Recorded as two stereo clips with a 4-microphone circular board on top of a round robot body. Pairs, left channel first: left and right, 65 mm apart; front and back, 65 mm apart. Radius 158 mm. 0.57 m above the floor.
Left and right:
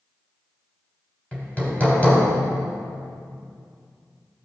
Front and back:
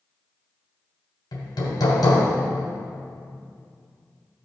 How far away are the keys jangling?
No keys jangling in this recording.